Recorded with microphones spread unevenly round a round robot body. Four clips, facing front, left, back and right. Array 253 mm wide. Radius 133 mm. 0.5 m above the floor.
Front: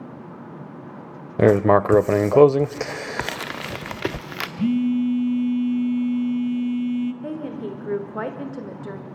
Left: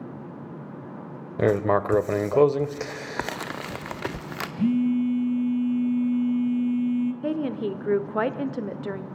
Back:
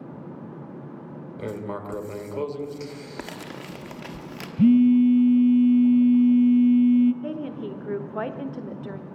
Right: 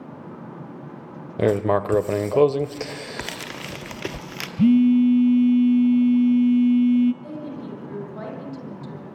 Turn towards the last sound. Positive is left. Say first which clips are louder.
# left 7 dB, front 1 dB
turn(degrees=80)